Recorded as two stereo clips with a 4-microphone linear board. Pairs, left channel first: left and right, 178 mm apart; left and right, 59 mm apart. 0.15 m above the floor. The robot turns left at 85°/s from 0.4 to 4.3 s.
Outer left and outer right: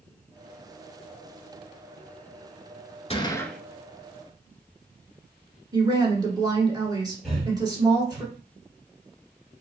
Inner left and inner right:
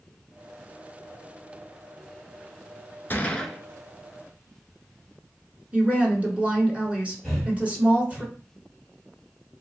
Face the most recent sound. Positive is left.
turn(degrees=0)  # may be behind; listen again after turning